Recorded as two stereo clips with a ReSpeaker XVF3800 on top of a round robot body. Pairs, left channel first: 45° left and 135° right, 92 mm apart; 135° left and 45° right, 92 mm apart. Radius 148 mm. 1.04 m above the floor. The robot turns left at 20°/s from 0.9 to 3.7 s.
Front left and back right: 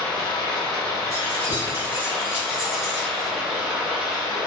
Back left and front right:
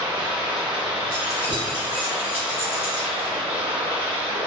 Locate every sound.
0.0 s running water: straight ahead, 0.9 m; by 4.5 s 55° right, 0.9 m
1.1 s keys jangling: 170° left, 1.4 m; by 3.3 s 125° left, 1.4 m